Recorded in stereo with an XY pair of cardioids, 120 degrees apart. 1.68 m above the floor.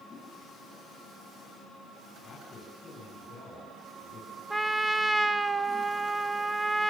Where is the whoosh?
40° left, 9 m.